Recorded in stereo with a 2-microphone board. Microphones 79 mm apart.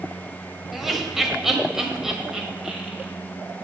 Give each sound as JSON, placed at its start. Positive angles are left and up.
{"t": 0.7, "sound": "laughter", "side_deg": 0, "distance_m": 1.0}